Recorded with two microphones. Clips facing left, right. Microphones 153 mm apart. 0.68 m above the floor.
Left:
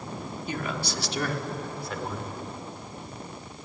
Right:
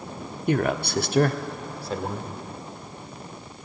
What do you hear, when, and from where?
0.5 s a man speaking: 60° right (ahead or behind), 1.1 m; by 2.3 s 25° right (ahead or behind), 2 m